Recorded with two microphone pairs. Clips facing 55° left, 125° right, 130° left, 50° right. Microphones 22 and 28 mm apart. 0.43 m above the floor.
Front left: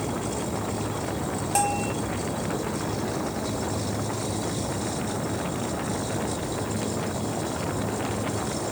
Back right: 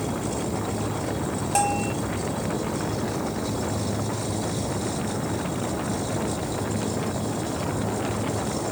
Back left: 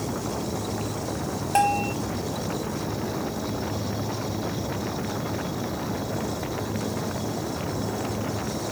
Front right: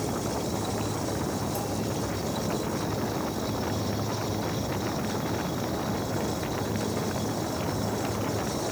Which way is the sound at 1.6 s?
150° left.